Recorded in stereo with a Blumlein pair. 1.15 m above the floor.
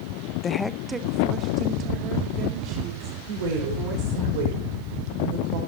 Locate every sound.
0.4 s a woman speaking: 30° left, 0.6 m; by 4.3 s 35° right, 5.5 m
3.3 s a woman speaking: 50° right, 5 m